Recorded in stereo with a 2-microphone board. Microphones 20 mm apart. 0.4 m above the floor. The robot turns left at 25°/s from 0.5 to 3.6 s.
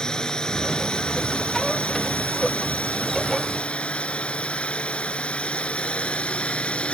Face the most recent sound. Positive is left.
turn(degrees=60)